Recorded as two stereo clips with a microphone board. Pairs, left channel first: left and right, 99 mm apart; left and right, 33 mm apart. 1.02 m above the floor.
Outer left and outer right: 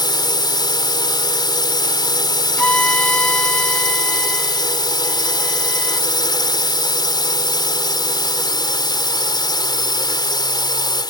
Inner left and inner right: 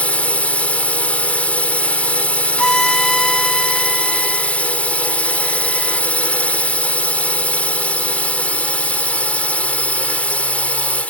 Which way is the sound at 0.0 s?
45° left (ahead or behind).